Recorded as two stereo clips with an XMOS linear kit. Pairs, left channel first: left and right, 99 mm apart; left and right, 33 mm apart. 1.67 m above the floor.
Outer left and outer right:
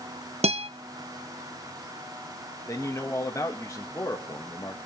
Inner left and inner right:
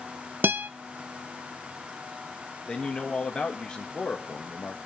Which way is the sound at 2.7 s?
30° left (ahead or behind).